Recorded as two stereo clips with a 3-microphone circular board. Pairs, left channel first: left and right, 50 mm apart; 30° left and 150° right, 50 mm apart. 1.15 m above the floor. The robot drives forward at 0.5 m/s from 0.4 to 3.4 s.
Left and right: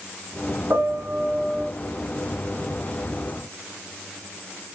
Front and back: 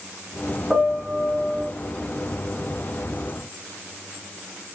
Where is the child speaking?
No child speaking in this recording.